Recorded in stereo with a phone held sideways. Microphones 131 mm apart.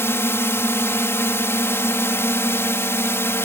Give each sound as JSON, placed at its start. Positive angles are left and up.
{"t": 0.0, "sound": "a drone", "side_deg": 20}